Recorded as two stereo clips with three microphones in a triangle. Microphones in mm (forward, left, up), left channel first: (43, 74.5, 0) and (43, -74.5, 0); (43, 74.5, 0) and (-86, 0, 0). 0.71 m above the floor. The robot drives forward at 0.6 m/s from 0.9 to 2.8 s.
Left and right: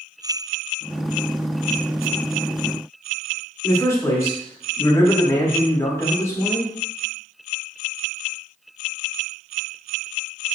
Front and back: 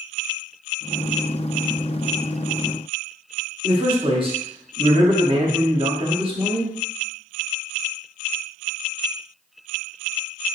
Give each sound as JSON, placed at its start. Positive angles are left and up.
{"t": 3.6, "sound": "a man speaking", "azimuth_deg": 160, "distance_m": 0.9}